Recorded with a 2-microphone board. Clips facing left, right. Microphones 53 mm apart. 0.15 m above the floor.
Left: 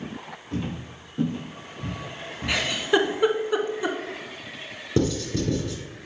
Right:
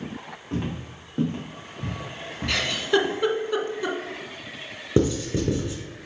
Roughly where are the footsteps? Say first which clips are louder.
Right 1 dB; right.